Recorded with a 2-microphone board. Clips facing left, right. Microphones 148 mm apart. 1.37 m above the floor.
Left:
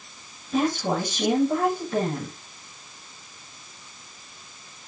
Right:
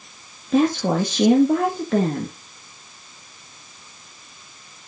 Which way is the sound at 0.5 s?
80° right.